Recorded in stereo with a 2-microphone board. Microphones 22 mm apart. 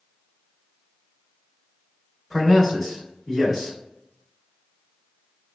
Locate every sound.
2.3 s a man speaking: centre (ahead or behind), 1.3 m